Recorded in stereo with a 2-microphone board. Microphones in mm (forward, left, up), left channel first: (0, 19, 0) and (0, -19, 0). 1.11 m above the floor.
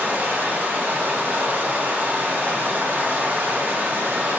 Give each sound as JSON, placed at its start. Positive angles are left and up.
{"t": 0.0, "sound": "running water", "side_deg": -50, "distance_m": 0.7}